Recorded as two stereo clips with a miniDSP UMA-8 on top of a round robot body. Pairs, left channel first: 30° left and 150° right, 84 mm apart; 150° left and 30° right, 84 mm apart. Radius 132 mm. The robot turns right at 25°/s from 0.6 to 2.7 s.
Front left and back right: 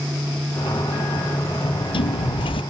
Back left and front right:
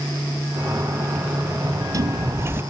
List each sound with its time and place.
1.6 s a sliding door: 10° left; by 2.6 s 35° left